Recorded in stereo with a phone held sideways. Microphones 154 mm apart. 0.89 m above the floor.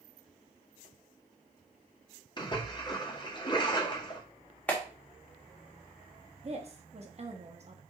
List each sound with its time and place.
2.4 s a splash: 30° left (ahead or behind), 1.9 m
4.7 s a clap: 10° left (ahead or behind), 1.9 m
6.4 s a woman speaking: 45° right (ahead or behind), 1.4 m